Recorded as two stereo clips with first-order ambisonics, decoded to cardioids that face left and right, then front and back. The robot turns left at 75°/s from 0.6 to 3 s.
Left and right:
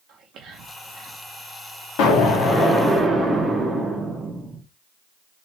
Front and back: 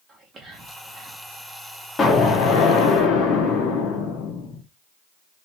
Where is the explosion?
70° left, 1.1 m; by 4.6 s 5° right, 1.1 m.